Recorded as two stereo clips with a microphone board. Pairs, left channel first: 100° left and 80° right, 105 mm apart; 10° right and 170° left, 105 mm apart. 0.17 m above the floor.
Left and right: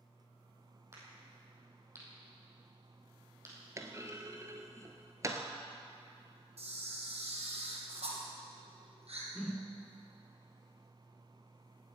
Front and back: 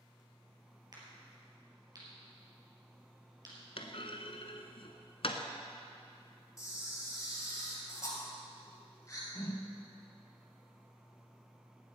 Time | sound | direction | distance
0.9 | a crack | 140° right | 4 m
3.8 | a clunk | 20° right | 1.1 m
6.6 | a camera shutter | 70° right | 3 m
9.3 | a whoosh | 10° left | 0.9 m